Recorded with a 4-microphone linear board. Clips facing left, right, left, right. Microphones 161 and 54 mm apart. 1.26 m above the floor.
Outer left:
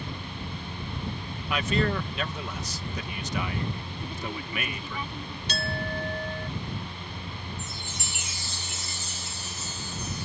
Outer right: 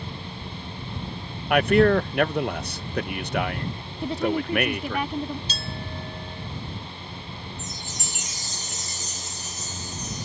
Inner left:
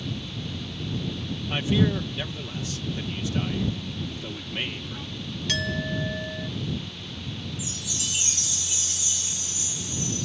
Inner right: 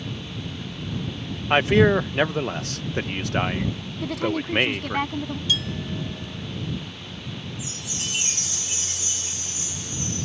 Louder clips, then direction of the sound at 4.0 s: Outer right 13 dB, inner right 10 dB; 80° right.